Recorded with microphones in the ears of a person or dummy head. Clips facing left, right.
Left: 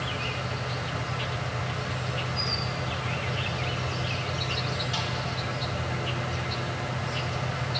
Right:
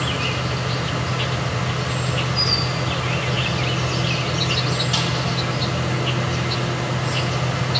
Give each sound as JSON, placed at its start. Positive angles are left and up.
{"t": 0.0, "sound": "an insect", "side_deg": -70, "distance_m": 0.7}